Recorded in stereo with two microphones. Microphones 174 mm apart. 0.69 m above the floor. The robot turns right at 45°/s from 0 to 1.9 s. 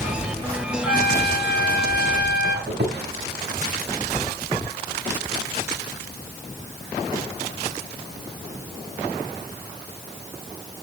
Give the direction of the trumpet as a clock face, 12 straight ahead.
10 o'clock.